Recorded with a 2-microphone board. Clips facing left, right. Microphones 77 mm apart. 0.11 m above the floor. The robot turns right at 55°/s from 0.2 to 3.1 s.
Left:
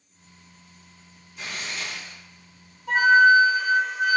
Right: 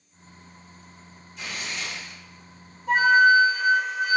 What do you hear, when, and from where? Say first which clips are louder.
1.4 s tearing paper: even; 160° left, 1.8 m; by 2.2 s 155° right, 1.8 m
2.9 s a flute: left 1 dB; 25° right (ahead or behind), 1.2 m; by 4.2 s 20° right (ahead or behind), 1.2 m